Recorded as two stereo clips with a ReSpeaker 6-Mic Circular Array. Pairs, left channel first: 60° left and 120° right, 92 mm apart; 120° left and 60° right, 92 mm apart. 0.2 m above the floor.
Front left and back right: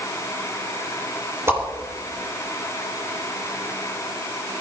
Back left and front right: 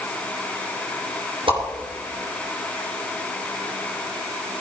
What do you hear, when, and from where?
1.5 s a whoosh: 60° right, 4 m